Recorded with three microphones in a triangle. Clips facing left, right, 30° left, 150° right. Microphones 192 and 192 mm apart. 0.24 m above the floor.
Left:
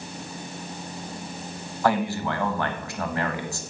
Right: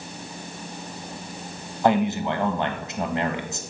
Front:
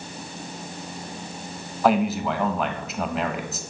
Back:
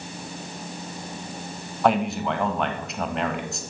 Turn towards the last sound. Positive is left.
turn(degrees=-55)